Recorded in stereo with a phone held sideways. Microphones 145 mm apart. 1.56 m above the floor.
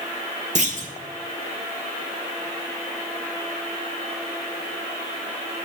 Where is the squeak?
No squeak in this recording.